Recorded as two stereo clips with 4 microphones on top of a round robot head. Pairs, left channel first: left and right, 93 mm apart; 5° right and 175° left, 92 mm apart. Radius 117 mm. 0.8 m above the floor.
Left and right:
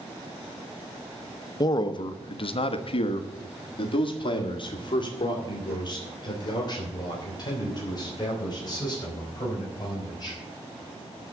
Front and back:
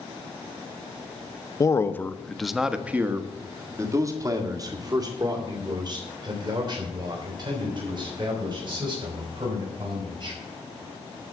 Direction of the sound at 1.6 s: 45° left.